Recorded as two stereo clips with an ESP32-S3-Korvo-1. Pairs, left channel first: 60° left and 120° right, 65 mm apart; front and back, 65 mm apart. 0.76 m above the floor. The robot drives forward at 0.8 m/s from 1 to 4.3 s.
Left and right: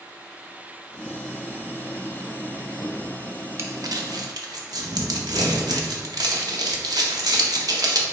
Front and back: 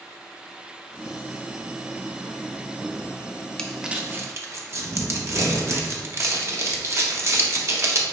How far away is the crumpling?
About 0.5 m.